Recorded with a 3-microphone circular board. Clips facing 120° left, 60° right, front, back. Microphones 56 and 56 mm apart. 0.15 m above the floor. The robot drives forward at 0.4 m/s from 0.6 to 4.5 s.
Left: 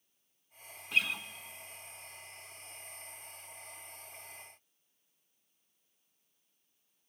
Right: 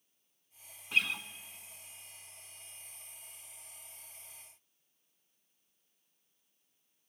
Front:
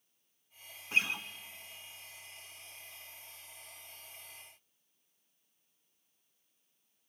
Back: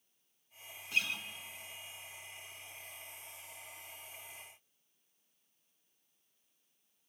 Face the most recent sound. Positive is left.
turn(degrees=170)